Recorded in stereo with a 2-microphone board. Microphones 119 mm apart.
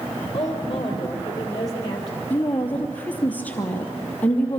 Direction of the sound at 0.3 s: 30° left (ahead or behind).